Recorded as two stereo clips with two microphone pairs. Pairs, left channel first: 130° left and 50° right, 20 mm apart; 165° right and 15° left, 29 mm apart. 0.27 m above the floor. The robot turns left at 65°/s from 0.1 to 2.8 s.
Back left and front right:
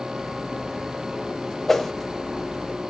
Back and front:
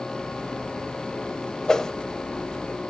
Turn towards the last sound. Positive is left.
turn(degrees=110)